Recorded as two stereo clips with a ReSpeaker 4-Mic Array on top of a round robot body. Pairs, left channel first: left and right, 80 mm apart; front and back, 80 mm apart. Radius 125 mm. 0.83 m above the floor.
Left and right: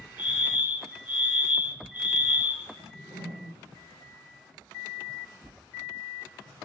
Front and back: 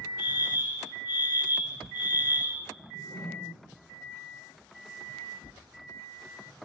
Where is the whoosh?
115° right, 6 m.